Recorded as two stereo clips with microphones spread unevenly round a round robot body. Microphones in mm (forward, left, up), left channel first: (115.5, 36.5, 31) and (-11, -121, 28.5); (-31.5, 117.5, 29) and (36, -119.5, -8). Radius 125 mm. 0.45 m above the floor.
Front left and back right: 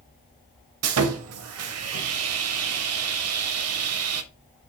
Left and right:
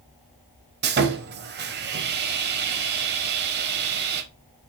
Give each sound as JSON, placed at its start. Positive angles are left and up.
{"t": 0.8, "sound": "sawing", "azimuth_deg": -130, "distance_m": 0.5}